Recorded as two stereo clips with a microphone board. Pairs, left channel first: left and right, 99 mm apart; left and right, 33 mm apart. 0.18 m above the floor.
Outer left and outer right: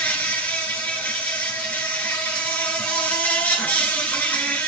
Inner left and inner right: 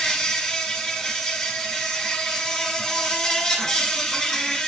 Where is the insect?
15° left (ahead or behind), 1.8 m.